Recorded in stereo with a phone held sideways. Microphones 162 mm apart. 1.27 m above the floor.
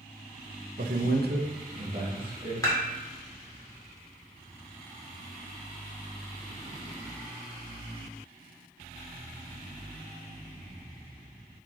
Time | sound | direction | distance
0.8 | a man speaking | 65° right (ahead or behind) | 0.9 m
2.6 | dishes clattering | 20° left (ahead or behind) | 2 m